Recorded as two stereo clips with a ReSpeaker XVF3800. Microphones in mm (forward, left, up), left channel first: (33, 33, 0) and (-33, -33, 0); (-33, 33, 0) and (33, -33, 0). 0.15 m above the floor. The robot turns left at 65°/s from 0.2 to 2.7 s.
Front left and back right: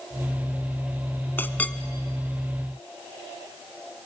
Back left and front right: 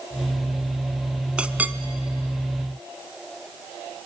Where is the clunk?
I don't hear a clunk.